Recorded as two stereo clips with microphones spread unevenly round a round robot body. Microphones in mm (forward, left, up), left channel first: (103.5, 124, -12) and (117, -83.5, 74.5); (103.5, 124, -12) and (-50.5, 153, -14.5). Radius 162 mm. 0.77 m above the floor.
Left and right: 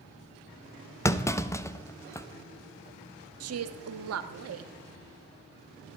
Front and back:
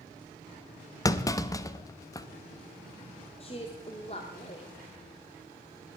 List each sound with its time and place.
1.1 s a clunk: 50° left, 0.9 m
3.4 s a woman speaking: 80° right, 1.3 m